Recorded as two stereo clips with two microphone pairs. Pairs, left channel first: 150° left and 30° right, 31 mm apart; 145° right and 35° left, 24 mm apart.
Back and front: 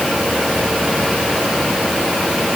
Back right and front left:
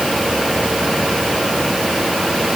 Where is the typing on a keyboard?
No typing on a keyboard in this recording.